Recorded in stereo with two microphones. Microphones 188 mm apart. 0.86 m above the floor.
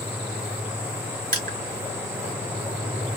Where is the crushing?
50° right (ahead or behind), 1.1 m.